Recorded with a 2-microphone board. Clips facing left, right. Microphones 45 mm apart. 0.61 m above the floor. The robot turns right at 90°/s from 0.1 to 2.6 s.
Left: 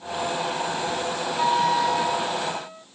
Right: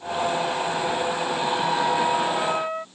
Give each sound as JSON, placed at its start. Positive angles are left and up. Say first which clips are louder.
{"t": 1.4, "sound": "a flute", "louder": "left 5 dB", "azimuth_deg": 125}